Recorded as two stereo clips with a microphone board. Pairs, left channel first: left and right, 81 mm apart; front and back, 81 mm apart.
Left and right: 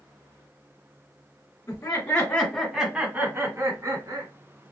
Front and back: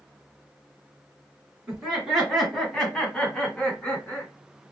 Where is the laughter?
100° left, 1.8 m; by 4.3 s 70° right, 2.5 m.